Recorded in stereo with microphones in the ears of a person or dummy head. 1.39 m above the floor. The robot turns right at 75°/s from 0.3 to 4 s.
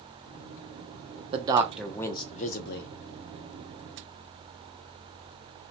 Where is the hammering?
No hammering in this recording.